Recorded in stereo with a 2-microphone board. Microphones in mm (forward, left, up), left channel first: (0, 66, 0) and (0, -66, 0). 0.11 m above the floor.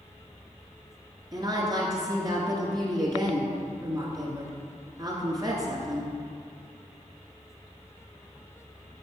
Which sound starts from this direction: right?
A woman speaking, at 1.3 s.